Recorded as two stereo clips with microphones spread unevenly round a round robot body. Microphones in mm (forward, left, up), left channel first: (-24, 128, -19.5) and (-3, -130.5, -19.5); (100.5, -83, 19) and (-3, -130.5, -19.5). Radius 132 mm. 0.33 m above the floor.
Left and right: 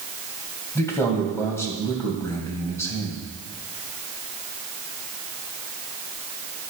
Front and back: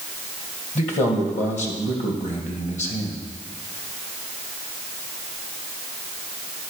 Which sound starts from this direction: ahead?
A man speaking, at 0.8 s.